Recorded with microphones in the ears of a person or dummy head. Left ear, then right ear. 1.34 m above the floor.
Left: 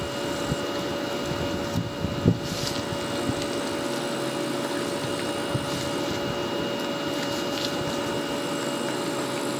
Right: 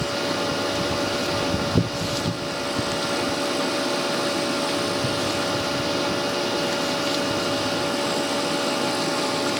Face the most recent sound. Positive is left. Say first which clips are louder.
# right 5 dB
turn(degrees=-45)  # may be behind; listen again after turning